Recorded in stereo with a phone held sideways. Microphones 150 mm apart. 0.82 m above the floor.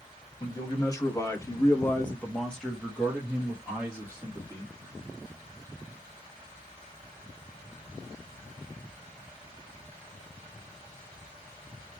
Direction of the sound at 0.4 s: 25° left (ahead or behind).